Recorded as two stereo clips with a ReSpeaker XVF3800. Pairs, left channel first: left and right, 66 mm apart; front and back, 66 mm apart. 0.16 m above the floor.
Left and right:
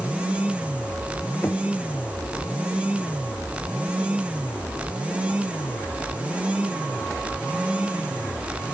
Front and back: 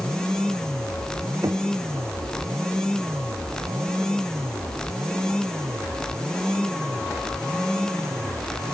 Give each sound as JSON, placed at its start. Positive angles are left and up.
{"t": 1.4, "sound": "knocking", "azimuth_deg": 145}